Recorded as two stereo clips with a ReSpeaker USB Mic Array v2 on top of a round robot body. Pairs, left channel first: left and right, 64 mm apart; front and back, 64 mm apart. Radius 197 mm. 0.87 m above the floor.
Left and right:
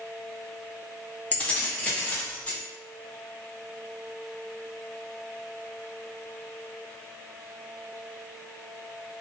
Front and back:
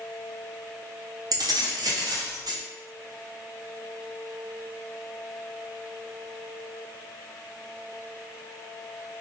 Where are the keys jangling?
160° left, 0.5 m.